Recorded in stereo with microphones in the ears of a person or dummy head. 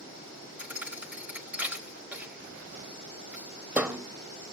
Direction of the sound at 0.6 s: 5° right (ahead or behind).